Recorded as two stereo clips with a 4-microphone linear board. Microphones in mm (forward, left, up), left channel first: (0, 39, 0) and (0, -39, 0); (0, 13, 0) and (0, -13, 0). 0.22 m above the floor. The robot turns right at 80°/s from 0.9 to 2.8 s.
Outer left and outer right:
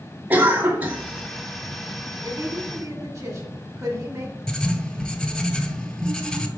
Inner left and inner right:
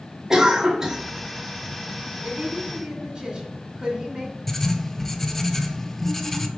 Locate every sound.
0.3 s a cough: 25° right (ahead or behind), 1.4 m; by 1.0 s 20° right (ahead or behind), 1.4 m
2.2 s a woman speaking: 95° right, 2 m; by 4.4 s 50° right, 2 m
4.5 s writing: 10° left (ahead or behind), 0.6 m